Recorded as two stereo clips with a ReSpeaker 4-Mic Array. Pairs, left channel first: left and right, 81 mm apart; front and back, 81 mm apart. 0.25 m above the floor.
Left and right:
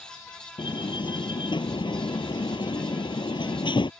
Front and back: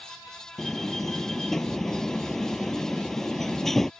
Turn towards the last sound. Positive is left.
turn(degrees=85)